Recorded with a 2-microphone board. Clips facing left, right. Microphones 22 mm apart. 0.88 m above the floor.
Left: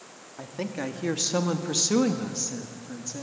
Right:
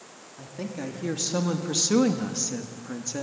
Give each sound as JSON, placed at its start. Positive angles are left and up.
{"t": 0.4, "sound": "a woman speaking", "side_deg": 40, "distance_m": 2.0}